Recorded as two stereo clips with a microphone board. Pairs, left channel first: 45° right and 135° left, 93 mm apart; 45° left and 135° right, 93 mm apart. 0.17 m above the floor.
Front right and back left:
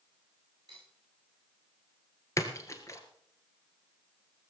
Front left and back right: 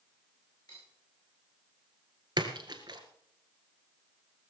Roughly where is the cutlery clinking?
Left.